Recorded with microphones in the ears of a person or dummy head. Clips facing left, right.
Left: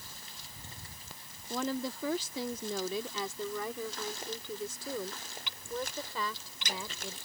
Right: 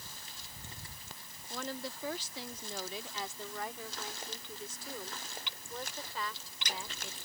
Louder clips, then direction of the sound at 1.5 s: Left 7 dB; 65° left (ahead or behind).